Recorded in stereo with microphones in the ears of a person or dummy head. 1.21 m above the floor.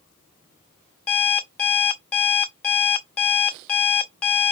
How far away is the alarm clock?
About 0.6 m.